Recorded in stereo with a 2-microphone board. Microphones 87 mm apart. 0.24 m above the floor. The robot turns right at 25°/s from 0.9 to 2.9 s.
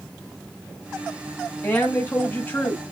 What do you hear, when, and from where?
1.6 s a woman speaking: 25° left (ahead or behind), 1.1 m